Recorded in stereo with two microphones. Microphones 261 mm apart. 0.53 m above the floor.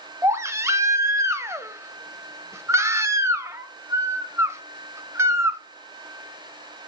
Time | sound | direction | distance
0.2 | a baby crying | 10° right (ahead or behind) | 0.7 m